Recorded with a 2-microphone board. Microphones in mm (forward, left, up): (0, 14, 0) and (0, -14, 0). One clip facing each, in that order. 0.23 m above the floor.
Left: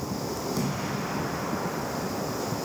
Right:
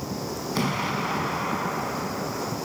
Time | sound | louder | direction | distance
0.6 | an explosion | right 4 dB | 60° right (ahead or behind) | 0.7 m